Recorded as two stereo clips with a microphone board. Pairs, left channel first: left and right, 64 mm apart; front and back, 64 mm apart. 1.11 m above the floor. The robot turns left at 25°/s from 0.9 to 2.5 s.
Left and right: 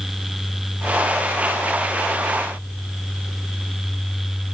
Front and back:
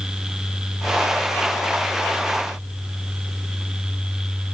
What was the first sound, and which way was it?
Only background noise.